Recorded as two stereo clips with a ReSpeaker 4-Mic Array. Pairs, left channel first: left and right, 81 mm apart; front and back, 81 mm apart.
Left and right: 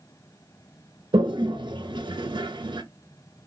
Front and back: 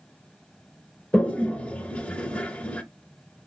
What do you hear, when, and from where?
1.1 s a toilet flushing: 75° right, 0.7 m